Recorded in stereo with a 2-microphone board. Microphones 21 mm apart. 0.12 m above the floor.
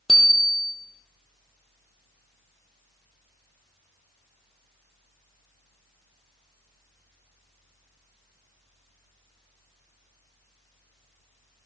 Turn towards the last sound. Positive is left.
turn(degrees=0)  # may be behind; listen again after turning